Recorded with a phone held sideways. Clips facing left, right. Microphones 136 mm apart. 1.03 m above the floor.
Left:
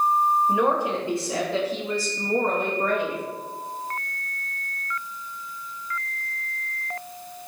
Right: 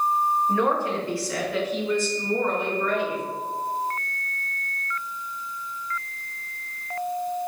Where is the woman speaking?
15° left (ahead or behind), 2.0 m; by 3.2 s 55° left (ahead or behind), 1.8 m.